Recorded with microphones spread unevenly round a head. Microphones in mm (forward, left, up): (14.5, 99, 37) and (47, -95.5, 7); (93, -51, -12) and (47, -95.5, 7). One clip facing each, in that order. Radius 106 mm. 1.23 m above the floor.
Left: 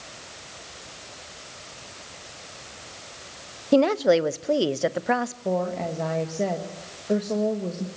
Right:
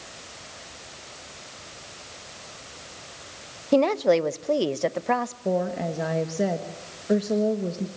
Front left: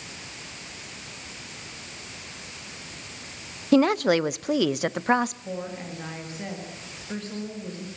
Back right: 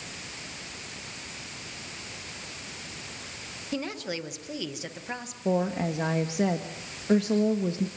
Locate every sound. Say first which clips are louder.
3.7 s a woman speaking: left 1 dB, front left 14 dB; 15° left, 0.7 m
5.5 s a woman speaking: right 1 dB, back right 7 dB; 160° right, 1.6 m